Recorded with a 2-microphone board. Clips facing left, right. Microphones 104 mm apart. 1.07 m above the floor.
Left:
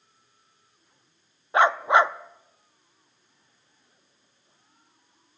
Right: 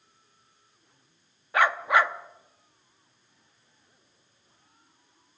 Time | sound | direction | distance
1.5 | a dog barking | 25° left (ahead or behind) | 0.6 m